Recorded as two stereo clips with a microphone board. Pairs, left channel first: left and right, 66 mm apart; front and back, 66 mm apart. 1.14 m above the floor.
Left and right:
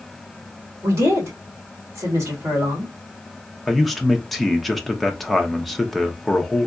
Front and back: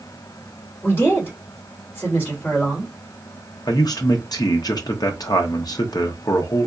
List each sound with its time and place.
0.8 s a woman speaking: 50° right, 3 m
3.7 s a man speaking: straight ahead, 0.8 m